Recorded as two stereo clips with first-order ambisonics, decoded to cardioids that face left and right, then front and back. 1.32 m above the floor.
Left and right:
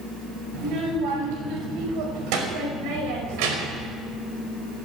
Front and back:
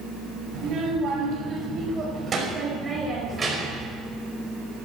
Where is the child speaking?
120° right, 5.5 m; by 3.9 s 100° right, 4.5 m.